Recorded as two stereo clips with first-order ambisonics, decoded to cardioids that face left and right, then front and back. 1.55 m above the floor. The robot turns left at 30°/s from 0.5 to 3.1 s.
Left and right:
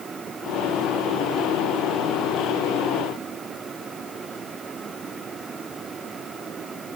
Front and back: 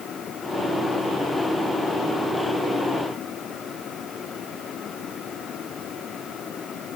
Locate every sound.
Only background noise.